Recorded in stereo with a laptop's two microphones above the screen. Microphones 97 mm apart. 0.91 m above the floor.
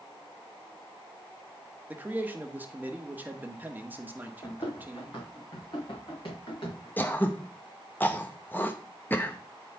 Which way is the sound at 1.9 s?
20° right (ahead or behind).